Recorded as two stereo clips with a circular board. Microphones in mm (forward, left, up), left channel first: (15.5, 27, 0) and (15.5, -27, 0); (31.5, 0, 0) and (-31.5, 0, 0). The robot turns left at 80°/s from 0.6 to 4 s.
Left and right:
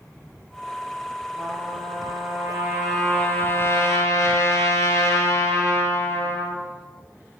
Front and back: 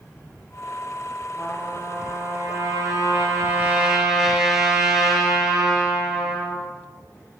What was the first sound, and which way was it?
A trumpet, 55° right.